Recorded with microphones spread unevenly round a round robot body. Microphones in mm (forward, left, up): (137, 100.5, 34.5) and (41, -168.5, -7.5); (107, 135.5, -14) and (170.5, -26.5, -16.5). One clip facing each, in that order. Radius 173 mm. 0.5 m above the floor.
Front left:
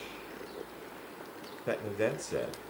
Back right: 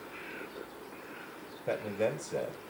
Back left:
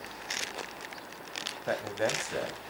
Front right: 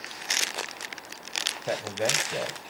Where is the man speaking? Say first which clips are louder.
Even, front right 2 dB; straight ahead, 2.5 m.